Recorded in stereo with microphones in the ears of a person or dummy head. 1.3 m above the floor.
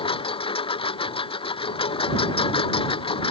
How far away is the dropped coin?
I don't hear a dropped coin.